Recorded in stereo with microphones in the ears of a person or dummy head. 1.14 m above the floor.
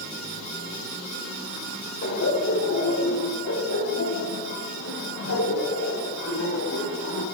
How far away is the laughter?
About 2.5 m.